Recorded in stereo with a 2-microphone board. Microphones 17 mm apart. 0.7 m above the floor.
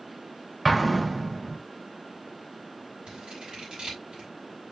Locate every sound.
0.7 s an explosion: 5° right (ahead or behind), 1.3 m
3.1 s scissors: 75° right (ahead or behind), 6 m